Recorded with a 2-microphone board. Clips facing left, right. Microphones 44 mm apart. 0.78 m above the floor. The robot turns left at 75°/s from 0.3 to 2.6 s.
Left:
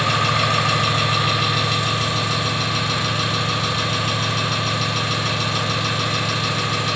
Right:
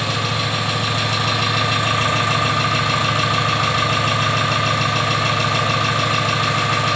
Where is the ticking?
No ticking in this recording.